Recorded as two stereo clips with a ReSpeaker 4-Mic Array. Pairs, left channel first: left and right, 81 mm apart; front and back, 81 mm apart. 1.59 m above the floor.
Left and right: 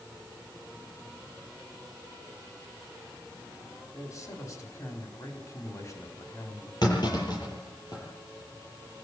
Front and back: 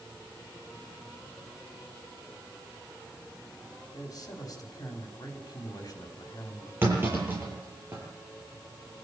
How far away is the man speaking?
About 5 m.